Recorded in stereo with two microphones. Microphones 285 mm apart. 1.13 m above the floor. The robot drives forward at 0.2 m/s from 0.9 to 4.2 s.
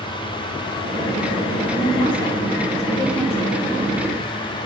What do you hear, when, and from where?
1.7 s a woman speaking: 15° left (ahead or behind), 1.9 m; by 4.0 s 10° left (ahead or behind), 2.5 m